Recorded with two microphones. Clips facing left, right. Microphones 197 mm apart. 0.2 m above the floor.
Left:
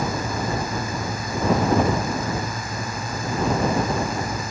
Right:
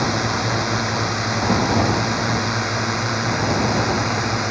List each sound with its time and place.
0.0 s a drone: 80° right; by 4.5 s 75° right (ahead or behind)